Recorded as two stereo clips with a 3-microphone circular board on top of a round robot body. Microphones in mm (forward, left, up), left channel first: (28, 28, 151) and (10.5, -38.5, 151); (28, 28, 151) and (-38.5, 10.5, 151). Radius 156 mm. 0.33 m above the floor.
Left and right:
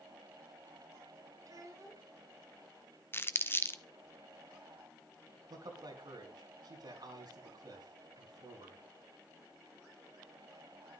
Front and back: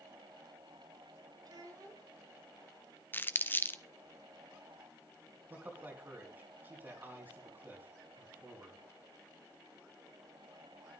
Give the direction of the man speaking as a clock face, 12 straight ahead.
3 o'clock.